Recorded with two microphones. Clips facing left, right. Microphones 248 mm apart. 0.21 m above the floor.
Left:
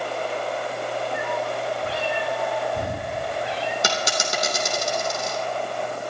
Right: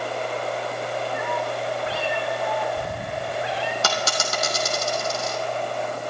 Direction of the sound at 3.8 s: 15° left (ahead or behind).